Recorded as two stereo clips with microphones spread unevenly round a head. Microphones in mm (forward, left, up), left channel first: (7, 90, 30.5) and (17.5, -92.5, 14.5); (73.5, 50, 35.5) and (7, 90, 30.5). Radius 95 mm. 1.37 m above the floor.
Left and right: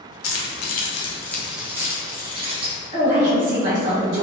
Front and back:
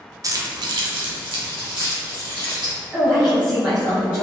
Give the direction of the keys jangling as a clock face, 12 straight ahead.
9 o'clock.